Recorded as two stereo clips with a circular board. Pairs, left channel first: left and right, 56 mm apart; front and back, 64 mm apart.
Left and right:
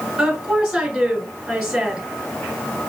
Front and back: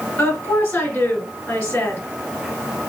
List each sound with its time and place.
0.2 s a woman speaking: 15° right, 1.9 m